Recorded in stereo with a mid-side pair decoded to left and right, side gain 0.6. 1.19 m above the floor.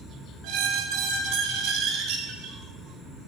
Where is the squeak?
70° right, 0.6 m.